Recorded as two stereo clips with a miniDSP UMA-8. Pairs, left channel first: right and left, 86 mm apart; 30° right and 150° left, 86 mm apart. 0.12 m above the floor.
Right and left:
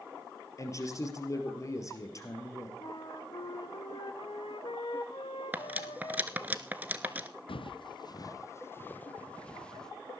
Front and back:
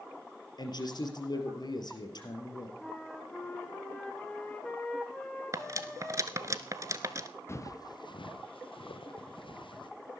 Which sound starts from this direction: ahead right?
A man speaking, at 0.6 s.